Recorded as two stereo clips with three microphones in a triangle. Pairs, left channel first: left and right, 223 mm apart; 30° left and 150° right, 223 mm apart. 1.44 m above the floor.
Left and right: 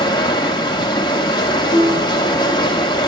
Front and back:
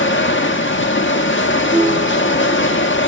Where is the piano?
135° right, 7 m.